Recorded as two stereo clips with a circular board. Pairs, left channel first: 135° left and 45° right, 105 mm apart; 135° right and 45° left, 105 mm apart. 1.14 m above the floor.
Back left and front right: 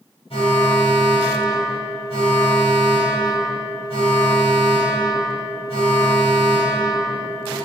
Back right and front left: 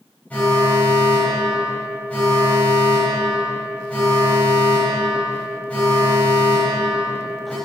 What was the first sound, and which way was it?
An alarm, 150° left.